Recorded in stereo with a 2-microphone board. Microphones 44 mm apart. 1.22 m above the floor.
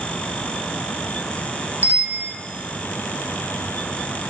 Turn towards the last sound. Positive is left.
turn(degrees=-45)  # may be behind; listen again after turning